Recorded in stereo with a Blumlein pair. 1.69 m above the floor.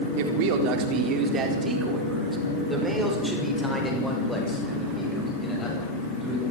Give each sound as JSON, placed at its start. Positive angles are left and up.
{"t": 0.2, "sound": "a man speaking", "azimuth_deg": -50, "distance_m": 4.5}